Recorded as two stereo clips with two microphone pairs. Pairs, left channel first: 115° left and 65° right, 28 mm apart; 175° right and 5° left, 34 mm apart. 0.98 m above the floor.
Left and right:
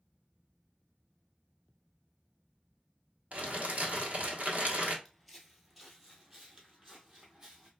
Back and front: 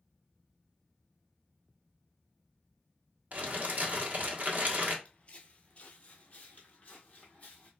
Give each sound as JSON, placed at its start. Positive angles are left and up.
{"t": 3.3, "sound": "crumpling", "azimuth_deg": -35, "distance_m": 1.2}
{"t": 5.0, "sound": "footsteps", "azimuth_deg": -155, "distance_m": 1.1}